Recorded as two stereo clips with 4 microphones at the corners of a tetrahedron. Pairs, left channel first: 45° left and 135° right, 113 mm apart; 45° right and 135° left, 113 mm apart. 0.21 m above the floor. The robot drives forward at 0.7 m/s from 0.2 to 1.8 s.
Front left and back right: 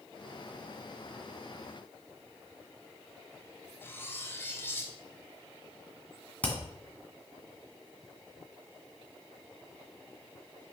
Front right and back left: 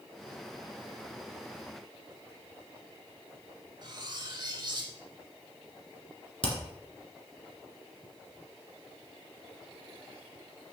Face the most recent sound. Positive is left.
turn(degrees=-30)